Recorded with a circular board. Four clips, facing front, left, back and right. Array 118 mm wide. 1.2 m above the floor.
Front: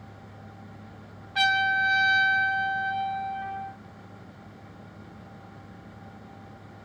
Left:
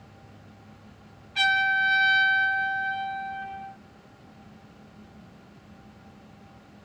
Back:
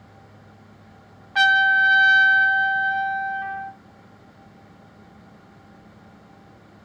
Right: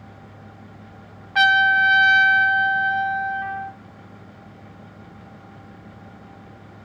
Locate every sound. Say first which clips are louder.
1.4 s a trumpet: right 8 dB, back 7 dB; 120° right, 1.0 m